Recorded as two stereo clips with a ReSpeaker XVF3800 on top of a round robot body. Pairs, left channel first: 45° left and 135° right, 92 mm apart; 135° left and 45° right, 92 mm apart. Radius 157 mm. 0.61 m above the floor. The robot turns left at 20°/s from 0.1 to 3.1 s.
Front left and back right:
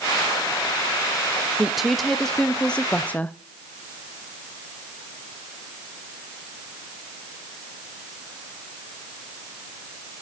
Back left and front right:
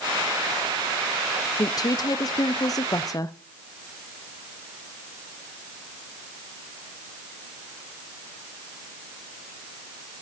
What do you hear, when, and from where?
1.6 s a woman speaking: 140° left, 0.7 m; by 3.4 s 110° left, 0.7 m